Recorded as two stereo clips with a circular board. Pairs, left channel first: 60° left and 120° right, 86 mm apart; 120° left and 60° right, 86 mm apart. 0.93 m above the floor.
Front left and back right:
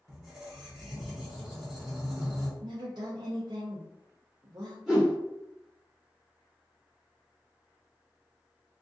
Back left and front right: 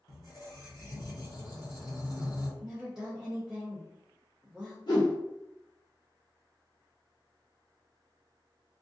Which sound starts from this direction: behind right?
A woman speaking, at 2.6 s.